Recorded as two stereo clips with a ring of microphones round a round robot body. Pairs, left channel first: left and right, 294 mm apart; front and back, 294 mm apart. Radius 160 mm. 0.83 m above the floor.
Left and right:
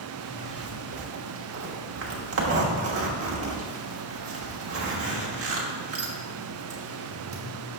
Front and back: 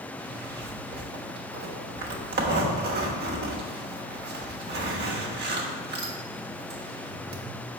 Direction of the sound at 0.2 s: 125° right.